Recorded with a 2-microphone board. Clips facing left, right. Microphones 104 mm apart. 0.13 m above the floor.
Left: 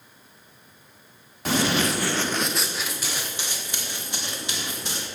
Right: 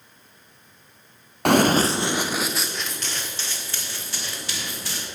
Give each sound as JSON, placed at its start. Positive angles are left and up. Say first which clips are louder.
{"t": 1.4, "sound": "running footsteps", "louder": "right 6 dB", "side_deg": -65, "distance_m": 0.9}